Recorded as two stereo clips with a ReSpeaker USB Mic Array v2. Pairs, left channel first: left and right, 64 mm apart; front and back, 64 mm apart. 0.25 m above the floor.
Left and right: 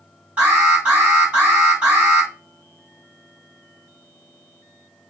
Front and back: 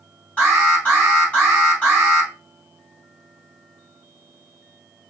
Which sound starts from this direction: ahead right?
An alarm, at 0.4 s.